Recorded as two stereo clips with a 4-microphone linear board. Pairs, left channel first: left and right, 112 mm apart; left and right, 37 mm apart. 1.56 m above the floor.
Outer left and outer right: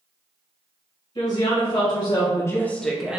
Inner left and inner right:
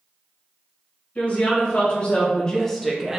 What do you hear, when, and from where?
1.1 s a woman speaking: 50° left (ahead or behind), 0.9 m; by 3.2 s 10° right (ahead or behind), 0.5 m